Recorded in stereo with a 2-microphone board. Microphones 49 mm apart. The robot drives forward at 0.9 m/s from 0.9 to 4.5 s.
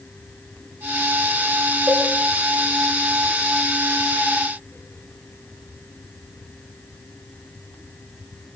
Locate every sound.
1.9 s a cowbell: 45° right (ahead or behind), 7 m; by 2.0 s 50° right (ahead or behind), 7 m